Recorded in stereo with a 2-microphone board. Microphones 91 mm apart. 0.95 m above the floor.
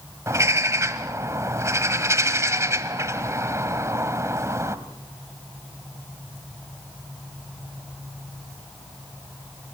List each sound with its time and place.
0.3 s a bird: 35° right (ahead or behind), 1.3 m